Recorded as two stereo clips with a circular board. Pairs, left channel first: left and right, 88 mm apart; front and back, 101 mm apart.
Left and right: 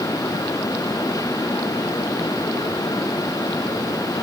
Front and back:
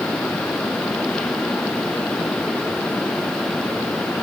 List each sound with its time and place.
Only background noise.